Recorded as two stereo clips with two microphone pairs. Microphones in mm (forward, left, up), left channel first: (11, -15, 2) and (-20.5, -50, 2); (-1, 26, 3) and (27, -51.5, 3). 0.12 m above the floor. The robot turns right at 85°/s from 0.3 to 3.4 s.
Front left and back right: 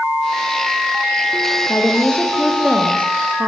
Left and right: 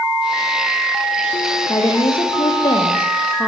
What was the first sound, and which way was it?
A woman speaking, 60° left.